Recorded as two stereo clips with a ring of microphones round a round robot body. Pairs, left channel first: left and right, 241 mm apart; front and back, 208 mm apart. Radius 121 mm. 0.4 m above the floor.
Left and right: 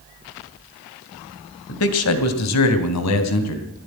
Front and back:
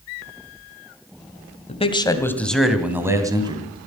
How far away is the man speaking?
About 2 m.